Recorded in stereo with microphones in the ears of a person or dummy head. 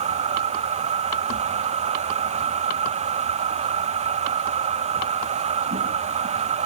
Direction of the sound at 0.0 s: 35° right (ahead or behind).